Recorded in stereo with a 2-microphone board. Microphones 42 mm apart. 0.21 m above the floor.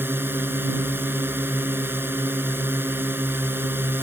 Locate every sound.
0.0 s a drone: 60° right (ahead or behind)